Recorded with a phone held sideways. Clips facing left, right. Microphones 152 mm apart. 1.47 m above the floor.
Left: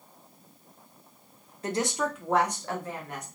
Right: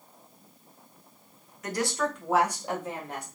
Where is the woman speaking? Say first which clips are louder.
Even; 30° left (ahead or behind), 1.0 m; by 3.2 s 30° right (ahead or behind), 1.6 m.